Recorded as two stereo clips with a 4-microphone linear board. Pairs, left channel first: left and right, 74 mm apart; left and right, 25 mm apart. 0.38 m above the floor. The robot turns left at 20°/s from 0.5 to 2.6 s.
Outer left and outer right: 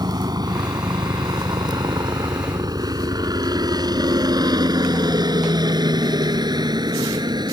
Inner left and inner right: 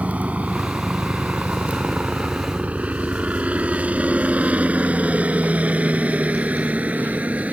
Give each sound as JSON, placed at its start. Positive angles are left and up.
{"t": 0.0, "sound": "a helicopter", "side_deg": -65}